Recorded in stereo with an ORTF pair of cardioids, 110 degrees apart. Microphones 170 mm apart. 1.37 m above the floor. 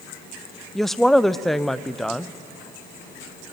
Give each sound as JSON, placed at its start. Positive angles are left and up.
{"t": 0.8, "sound": "a woman speaking", "azimuth_deg": 0, "distance_m": 0.5}